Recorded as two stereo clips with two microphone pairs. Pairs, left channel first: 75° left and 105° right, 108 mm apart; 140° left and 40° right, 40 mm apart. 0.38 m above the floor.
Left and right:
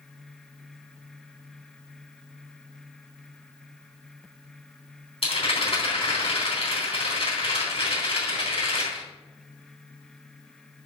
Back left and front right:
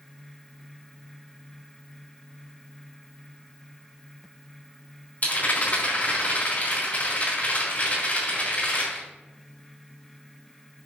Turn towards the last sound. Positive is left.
turn(degrees=95)